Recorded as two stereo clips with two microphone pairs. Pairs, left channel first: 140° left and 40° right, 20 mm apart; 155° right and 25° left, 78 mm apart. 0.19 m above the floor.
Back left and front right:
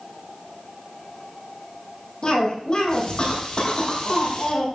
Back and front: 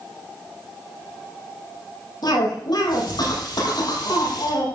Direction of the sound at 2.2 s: 175° right.